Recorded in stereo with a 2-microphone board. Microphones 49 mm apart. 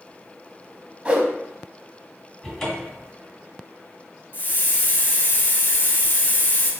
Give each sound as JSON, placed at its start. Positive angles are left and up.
{"t": 1.1, "sound": "a whoosh", "side_deg": -25, "distance_m": 0.8}
{"t": 2.4, "sound": "a cupboard door", "side_deg": 15, "distance_m": 1.4}
{"t": 4.3, "sound": "a hiss", "side_deg": 45, "distance_m": 0.9}